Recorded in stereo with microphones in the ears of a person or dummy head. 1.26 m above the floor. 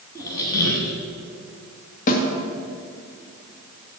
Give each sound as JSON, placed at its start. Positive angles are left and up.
{"t": 0.1, "sound": "a squeak", "side_deg": 20, "distance_m": 1.7}
{"t": 2.1, "sound": "a snare drum", "side_deg": 45, "distance_m": 2.0}